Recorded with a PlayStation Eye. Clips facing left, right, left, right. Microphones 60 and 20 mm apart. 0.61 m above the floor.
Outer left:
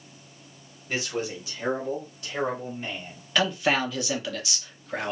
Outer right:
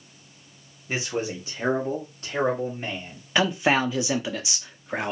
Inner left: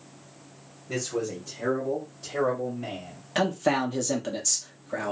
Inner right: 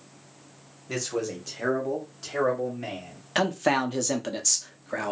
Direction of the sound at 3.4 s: 20° right (ahead or behind).